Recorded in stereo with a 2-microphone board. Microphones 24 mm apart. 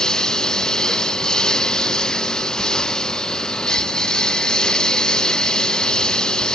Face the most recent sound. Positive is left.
turn(degrees=30)  # may be behind; listen again after turning